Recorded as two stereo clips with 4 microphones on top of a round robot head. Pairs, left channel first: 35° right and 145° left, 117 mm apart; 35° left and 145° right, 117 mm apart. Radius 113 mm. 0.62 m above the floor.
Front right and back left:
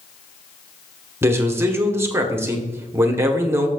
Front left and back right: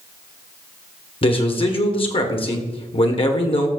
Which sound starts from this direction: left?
A man speaking, at 1.2 s.